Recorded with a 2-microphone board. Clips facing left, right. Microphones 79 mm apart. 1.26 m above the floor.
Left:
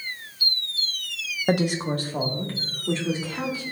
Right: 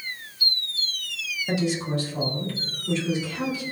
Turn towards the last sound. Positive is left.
turn(degrees=40)  # may be behind; listen again after turning